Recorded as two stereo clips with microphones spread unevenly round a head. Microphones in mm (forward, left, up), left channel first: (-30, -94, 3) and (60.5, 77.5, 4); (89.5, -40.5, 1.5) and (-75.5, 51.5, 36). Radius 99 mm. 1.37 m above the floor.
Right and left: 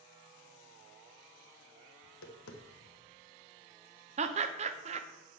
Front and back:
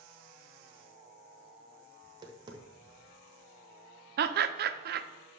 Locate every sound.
2.0 s tapping: 140° right, 0.9 m
4.2 s laughter: 115° left, 0.6 m